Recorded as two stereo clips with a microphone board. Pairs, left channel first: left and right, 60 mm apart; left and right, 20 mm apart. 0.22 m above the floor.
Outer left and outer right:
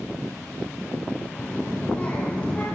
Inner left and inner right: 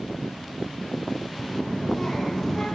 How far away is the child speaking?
About 6 m.